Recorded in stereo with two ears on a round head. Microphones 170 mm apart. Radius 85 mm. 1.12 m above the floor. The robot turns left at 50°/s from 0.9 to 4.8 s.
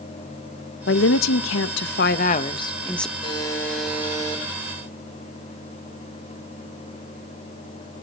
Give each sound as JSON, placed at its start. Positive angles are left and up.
{"t": 0.9, "sound": "a woman speaking", "azimuth_deg": 110, "distance_m": 1.0}
{"t": 3.2, "sound": "a buzzer", "azimuth_deg": 30, "distance_m": 7.0}